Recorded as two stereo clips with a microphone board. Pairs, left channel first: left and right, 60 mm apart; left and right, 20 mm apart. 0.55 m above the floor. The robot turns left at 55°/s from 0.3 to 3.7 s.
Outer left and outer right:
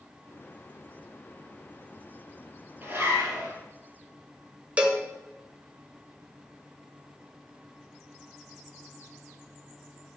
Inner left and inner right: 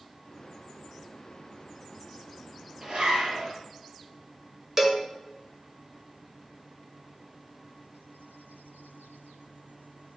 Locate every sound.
2.8 s a zipper: 35° right, 4 m; by 3.5 s 75° right, 4 m
4.8 s a cowbell: 20° right (ahead or behind), 1.5 m